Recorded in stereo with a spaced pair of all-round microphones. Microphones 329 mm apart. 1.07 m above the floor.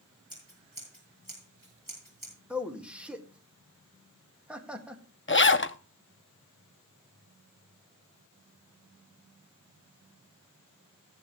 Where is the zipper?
35° left (ahead or behind), 0.6 m.